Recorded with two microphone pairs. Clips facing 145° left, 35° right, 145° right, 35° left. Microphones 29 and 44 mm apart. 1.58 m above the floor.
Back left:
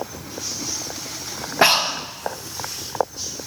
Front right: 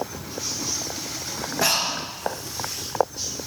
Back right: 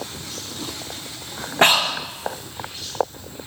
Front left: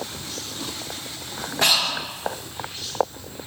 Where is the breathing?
175° left, 1.0 m.